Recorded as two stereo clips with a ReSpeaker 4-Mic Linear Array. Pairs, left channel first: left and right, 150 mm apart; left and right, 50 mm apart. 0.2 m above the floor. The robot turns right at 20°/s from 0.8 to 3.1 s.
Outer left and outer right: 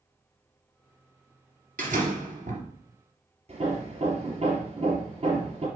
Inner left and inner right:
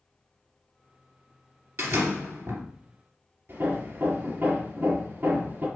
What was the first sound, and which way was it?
A door slam, 65° right (ahead or behind).